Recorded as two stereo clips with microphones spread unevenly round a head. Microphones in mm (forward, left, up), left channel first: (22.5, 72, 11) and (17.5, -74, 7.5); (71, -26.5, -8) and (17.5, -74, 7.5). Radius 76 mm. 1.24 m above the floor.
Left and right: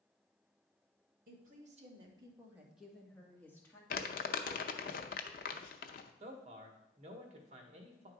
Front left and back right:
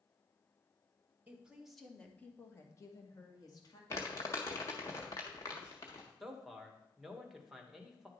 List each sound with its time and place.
1.3 s a woman speaking: 65° right, 1.5 m; by 3.8 s 15° left, 2.5 m
3.9 s crumpling: 110° left, 0.6 m
6.2 s a man speaking: 50° right, 1.6 m